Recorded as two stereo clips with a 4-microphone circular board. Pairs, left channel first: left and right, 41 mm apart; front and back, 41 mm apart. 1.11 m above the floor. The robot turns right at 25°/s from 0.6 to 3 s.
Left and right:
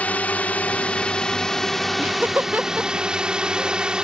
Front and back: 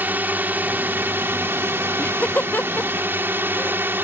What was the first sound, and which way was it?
A drone, 140° left.